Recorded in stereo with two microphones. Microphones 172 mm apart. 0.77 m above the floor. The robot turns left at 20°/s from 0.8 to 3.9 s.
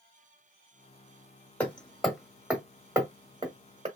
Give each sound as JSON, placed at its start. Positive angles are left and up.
{"t": 1.6, "sound": "hammering", "side_deg": 10, "distance_m": 1.0}